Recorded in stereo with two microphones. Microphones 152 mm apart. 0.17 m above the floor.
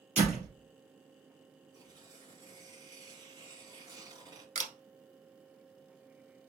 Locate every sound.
0.2 s a door slam: 45° right (ahead or behind), 3 m
1.7 s tearing paper: 25° right (ahead or behind), 2.0 m
4.5 s a camera shutter: 60° right (ahead or behind), 0.9 m